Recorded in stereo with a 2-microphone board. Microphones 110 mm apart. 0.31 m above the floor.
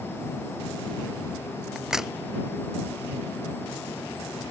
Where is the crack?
5° right (ahead or behind).